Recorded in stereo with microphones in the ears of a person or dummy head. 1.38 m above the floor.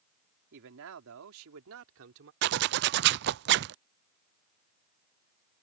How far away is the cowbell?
I don't hear a cowbell.